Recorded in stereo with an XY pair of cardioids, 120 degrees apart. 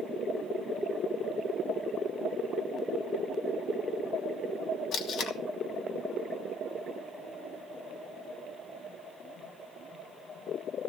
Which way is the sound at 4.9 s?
65° left.